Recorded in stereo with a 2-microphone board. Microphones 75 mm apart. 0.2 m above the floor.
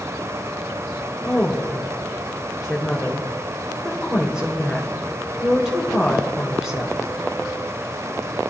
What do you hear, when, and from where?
1.2 s a woman speaking: 10° right (ahead or behind), 3 m